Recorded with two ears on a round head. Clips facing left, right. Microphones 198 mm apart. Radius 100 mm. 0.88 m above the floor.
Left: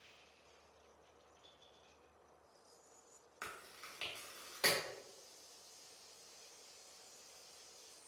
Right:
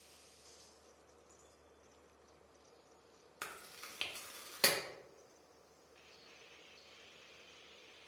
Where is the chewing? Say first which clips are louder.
Right 1 dB; 45° right (ahead or behind), 0.5 m.